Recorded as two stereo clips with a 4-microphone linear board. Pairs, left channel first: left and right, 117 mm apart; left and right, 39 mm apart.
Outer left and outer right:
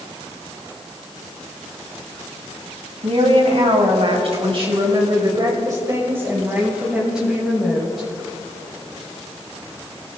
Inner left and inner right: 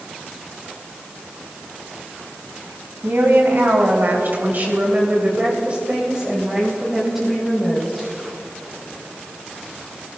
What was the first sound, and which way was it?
A woman speaking, 60° right (ahead or behind).